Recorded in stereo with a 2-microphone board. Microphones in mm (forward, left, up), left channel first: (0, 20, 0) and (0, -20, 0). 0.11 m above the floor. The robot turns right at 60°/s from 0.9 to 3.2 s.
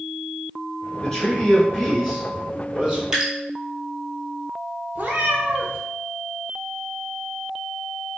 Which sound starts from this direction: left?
A man speaking, at 1.0 s.